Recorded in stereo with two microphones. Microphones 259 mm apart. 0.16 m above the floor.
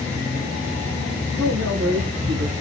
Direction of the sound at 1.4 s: 70° right (ahead or behind).